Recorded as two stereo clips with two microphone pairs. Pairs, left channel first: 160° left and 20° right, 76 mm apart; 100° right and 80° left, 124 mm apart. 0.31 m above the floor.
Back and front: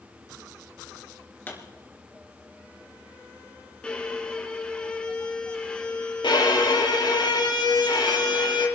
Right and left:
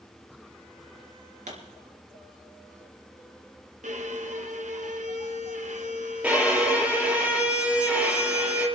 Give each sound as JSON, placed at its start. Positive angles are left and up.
{"t": 1.5, "sound": "a pop", "azimuth_deg": 100, "distance_m": 3.0}
{"t": 3.8, "sound": "a violin", "azimuth_deg": 85, "distance_m": 1.3}
{"t": 6.2, "sound": "a violin", "azimuth_deg": 160, "distance_m": 5.0}